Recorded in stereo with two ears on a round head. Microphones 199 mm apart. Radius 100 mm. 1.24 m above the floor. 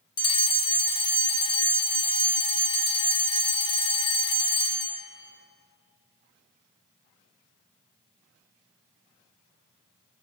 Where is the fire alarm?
20° left (ahead or behind), 0.9 m.